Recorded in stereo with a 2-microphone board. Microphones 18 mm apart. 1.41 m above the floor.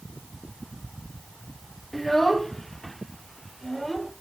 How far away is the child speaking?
About 1.2 m.